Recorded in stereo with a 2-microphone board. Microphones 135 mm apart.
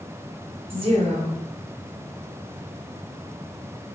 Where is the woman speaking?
45° right (ahead or behind), 1.0 m.